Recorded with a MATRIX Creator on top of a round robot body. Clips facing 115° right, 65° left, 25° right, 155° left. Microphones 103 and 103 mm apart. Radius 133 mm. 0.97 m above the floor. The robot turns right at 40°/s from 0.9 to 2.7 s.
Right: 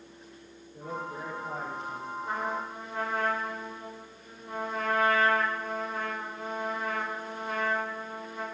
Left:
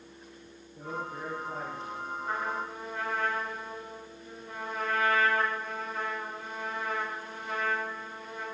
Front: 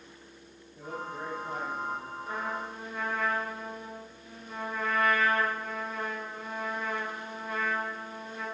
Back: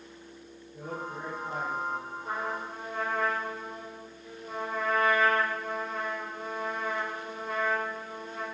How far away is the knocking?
I don't hear knocking.